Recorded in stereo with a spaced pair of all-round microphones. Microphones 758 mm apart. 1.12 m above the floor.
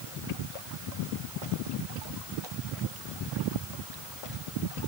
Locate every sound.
Only background noise.